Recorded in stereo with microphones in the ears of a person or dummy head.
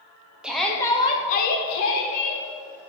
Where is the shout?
5° right (ahead or behind), 1.0 m; by 2.4 s 70° left (ahead or behind), 1.3 m.